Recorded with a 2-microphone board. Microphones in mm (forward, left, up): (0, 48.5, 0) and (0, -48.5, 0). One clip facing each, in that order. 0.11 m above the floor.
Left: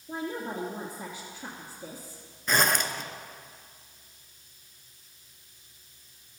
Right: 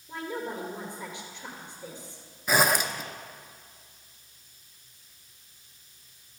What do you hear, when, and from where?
0.1 s a woman speaking: 40° left (ahead or behind), 1.8 m
2.5 s a zipper: 5° right (ahead or behind), 0.6 m